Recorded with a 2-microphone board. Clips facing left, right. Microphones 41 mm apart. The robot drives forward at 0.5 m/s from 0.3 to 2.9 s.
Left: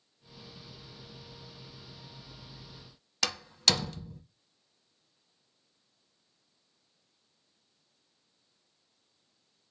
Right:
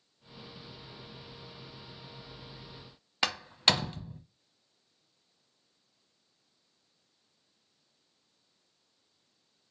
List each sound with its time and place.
3.2 s a door slam: 25° right (ahead or behind), 0.9 m